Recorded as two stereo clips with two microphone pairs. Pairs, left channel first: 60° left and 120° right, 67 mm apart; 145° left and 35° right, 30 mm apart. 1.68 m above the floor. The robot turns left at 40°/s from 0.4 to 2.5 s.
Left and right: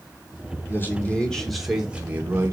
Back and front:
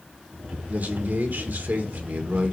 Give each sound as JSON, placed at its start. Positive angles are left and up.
{"t": 0.7, "sound": "a man speaking", "azimuth_deg": 5, "distance_m": 2.0}